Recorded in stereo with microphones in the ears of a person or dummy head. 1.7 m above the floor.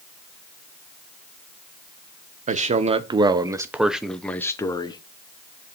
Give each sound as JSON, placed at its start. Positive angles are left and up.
{"t": 2.5, "sound": "a man speaking", "side_deg": -40, "distance_m": 1.3}